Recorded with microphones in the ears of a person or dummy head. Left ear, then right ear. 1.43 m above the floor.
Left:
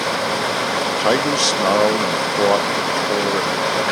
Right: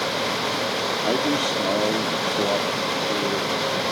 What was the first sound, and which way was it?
A man speaking, 60° left (ahead or behind).